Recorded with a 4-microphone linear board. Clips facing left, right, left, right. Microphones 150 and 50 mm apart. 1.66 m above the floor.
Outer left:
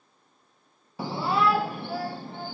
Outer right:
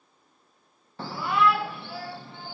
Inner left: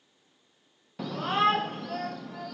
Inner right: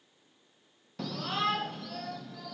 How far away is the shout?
About 0.6 m.